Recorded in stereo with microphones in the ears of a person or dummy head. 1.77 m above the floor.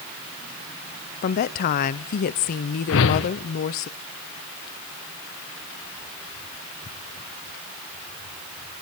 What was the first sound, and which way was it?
A woman speaking, 45° left (ahead or behind).